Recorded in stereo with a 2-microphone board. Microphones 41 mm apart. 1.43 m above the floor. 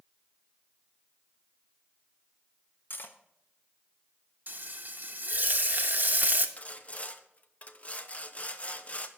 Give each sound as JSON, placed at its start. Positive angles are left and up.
{"t": 2.9, "sound": "cutlery clinking", "side_deg": 50, "distance_m": 1.0}
{"t": 4.5, "sound": "frying", "side_deg": -45, "distance_m": 1.0}
{"t": 6.6, "sound": "sawing", "side_deg": 30, "distance_m": 0.8}